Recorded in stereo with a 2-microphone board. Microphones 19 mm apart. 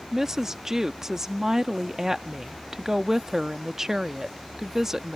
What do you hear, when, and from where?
0.1 s a woman speaking: 20° right (ahead or behind)